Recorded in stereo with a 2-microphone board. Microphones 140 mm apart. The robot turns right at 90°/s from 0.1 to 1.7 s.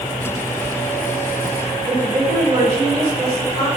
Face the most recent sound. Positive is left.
turn(degrees=-50)  # may be behind; listen again after turning